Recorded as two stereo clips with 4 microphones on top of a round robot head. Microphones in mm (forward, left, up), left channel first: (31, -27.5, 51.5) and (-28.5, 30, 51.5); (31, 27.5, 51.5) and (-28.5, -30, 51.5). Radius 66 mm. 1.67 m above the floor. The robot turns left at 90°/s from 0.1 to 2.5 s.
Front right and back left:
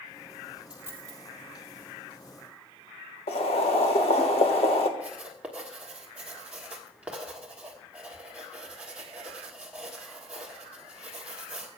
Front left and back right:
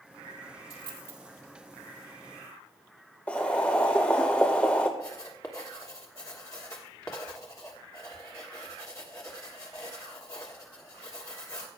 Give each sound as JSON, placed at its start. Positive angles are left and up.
{"t": 0.7, "sound": "a dropped coin", "azimuth_deg": -150, "distance_m": 2.0}
{"t": 3.3, "sound": "boiling", "azimuth_deg": -30, "distance_m": 1.3}
{"t": 5.0, "sound": "writing", "azimuth_deg": 70, "distance_m": 1.2}